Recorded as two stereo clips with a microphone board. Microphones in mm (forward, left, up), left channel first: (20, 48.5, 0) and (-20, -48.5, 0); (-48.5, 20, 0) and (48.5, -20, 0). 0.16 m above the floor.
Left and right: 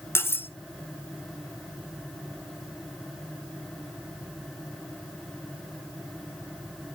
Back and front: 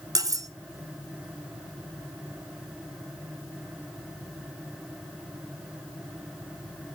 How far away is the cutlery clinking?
About 1.0 m.